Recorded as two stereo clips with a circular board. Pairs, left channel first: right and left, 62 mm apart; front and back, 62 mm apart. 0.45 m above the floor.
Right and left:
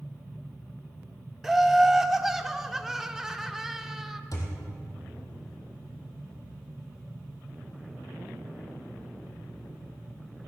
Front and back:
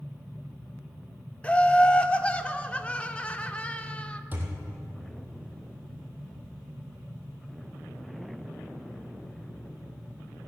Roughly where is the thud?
Behind right.